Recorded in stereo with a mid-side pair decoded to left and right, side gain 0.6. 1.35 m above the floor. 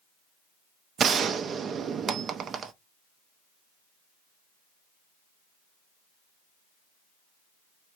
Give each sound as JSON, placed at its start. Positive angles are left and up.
{"t": 1.0, "sound": "a gunshot", "azimuth_deg": -40, "distance_m": 0.6}